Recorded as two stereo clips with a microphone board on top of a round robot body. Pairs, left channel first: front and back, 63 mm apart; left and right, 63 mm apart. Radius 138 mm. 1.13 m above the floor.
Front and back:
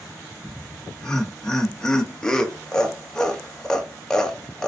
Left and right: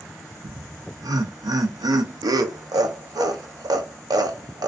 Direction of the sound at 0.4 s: 80° right.